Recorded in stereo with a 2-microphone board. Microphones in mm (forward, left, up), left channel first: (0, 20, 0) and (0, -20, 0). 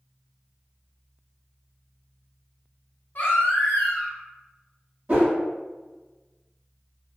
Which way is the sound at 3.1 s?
50° left (ahead or behind).